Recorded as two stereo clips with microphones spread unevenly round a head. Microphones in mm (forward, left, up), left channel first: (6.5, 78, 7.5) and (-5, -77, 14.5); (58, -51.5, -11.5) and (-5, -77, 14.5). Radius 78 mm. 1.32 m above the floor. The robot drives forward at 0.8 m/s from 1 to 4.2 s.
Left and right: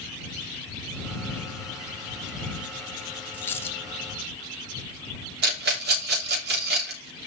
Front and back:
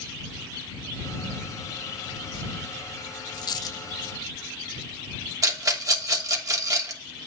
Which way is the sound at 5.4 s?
125° right.